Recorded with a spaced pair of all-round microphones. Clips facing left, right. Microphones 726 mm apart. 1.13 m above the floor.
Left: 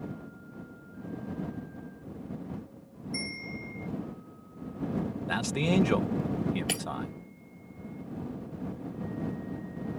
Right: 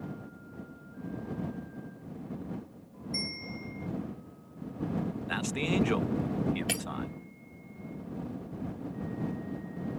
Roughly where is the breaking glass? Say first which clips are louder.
Even; centre.